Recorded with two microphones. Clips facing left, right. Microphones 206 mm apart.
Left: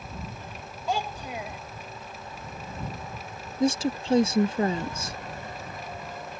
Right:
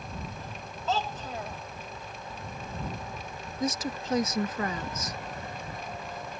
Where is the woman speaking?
30° left (ahead or behind).